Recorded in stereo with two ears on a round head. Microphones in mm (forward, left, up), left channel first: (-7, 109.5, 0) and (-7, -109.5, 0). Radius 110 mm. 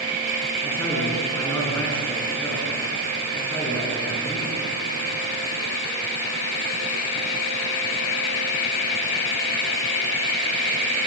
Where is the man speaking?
10° left (ahead or behind), 8.5 m.